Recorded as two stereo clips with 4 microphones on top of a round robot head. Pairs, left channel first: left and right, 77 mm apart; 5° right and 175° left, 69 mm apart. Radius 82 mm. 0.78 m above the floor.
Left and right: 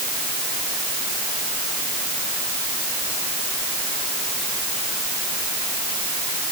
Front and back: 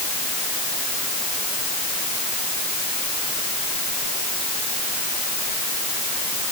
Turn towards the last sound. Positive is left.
No sound to turn to.